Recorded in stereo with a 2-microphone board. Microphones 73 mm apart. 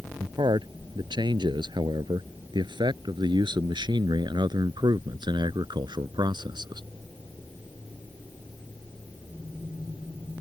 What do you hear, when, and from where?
0.2 s a man speaking: 80° right; by 6.8 s 75° right (ahead or behind)